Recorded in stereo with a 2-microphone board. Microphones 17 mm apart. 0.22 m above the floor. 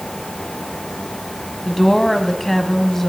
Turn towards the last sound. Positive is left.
turn(degrees=25)  # may be behind; listen again after turning